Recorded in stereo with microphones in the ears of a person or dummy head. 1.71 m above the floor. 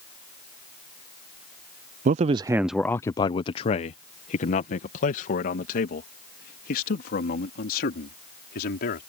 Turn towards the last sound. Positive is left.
turn(degrees=60)  # may be behind; listen again after turning